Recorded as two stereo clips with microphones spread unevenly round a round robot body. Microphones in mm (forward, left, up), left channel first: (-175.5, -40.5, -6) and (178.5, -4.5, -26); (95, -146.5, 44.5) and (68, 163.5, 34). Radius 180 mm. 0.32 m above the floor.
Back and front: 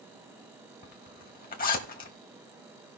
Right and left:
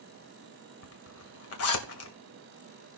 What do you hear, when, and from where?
0.8 s a zipper: 110° right, 1.8 m